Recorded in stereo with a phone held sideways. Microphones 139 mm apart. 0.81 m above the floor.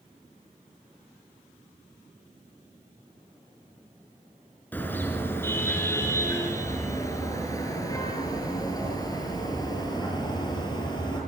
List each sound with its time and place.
4.7 s a car horn: 10° left (ahead or behind), 4.5 m; by 11.2 s 30° left (ahead or behind), 8.5 m